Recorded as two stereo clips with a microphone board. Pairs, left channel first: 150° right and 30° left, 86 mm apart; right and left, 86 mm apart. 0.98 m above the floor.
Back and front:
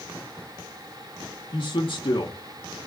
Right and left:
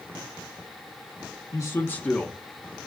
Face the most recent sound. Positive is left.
turn(degrees=160)